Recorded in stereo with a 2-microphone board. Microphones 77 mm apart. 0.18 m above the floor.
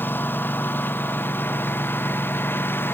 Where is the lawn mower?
25° left (ahead or behind); by 2.9 s 30° left (ahead or behind).